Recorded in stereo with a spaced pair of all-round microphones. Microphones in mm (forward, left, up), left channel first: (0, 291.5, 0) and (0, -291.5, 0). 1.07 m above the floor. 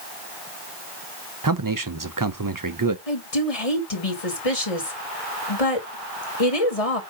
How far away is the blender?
No blender in this recording.